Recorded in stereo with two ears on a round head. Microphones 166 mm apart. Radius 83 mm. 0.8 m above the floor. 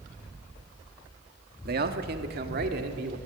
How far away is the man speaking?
About 1.6 m.